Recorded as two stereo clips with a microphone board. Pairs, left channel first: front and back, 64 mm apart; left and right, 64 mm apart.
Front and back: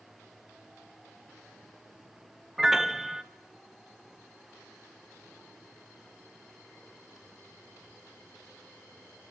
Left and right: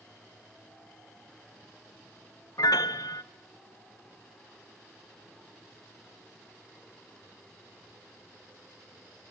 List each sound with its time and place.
2.6 s a piano: 95° left, 0.9 m